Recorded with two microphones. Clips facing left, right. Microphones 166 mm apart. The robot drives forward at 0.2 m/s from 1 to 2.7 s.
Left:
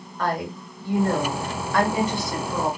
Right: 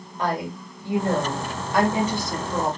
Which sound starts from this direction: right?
A woman speaking, at 0.2 s.